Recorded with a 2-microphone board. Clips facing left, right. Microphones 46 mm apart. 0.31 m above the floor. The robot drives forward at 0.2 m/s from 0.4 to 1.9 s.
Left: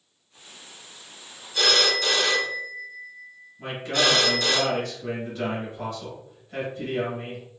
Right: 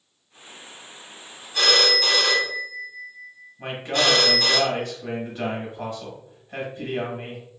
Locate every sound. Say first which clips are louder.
1.5 s a phone ringing: right 2 dB; 30° right (ahead or behind), 1.5 m
3.6 s a man speaking: right 1 dB; 25° right (ahead or behind), 1.5 m